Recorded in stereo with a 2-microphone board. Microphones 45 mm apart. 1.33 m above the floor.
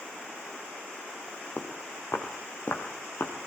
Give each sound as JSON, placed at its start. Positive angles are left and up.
{"t": 1.6, "sound": "footsteps", "side_deg": 60, "distance_m": 3.5}